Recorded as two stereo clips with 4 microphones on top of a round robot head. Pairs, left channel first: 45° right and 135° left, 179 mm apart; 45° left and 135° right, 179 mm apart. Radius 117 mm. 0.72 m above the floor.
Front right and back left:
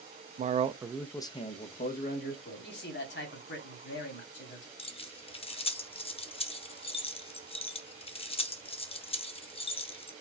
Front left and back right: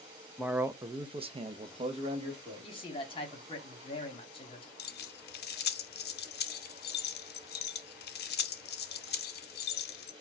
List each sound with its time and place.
0.4 s a man speaking: 140° left, 0.6 m; by 2.9 s 75° right, 1.5 m
2.6 s a man speaking: 20° right, 1.4 m
4.8 s keys jangling: 15° left, 0.6 m